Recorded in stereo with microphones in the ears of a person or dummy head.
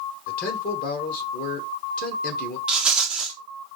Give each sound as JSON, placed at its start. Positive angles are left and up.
{"t": 0.3, "sound": "a man speaking", "side_deg": 50, "distance_m": 1.8}
{"t": 2.7, "sound": "a rattle", "side_deg": -15, "distance_m": 0.6}